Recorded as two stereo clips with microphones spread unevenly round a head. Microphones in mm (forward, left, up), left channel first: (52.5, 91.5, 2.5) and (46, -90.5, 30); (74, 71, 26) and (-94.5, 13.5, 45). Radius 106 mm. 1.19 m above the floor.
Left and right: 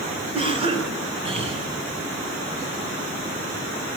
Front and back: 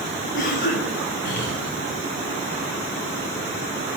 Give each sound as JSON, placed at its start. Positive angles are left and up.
{"t": 0.3, "sound": "a cough", "azimuth_deg": -35, "distance_m": 6.5}